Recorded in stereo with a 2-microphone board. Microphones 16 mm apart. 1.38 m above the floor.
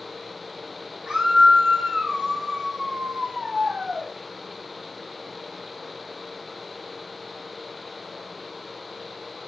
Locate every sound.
1.1 s a scream: 75° right (ahead or behind), 3.5 m; by 4.1 s 90° right, 1.9 m